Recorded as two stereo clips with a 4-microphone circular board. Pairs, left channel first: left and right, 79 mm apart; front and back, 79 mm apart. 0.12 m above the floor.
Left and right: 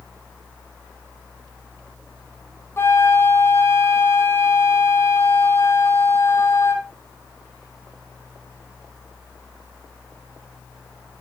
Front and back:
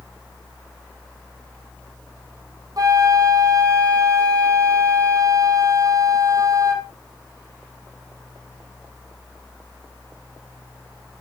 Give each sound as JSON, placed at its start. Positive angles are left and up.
{"t": 2.8, "sound": "a flute", "azimuth_deg": 145, "distance_m": 2.5}